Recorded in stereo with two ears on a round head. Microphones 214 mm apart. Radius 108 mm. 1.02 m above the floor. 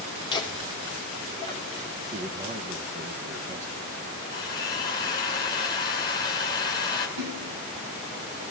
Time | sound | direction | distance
0.3 | laughter | 20° left (ahead or behind) | 3 m
2.1 | a man speaking | 30° right (ahead or behind) | 0.9 m
4.3 | a drill | 20° left (ahead or behind) | 4 m
7.2 | a splash | 75° right (ahead or behind) | 4.5 m